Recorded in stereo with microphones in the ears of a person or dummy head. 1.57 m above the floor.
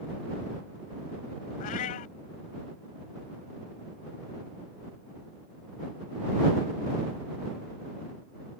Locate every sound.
1.6 s a cat meowing: 50° left (ahead or behind)